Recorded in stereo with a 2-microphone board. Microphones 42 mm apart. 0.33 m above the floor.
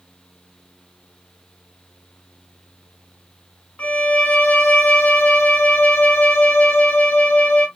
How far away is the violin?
About 1.4 m.